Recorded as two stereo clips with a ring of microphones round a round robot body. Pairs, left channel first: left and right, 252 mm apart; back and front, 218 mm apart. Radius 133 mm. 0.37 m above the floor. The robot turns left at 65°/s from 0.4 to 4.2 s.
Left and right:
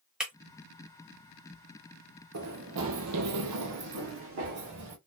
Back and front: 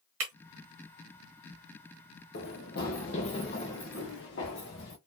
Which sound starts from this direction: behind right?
Running footsteps, at 2.3 s.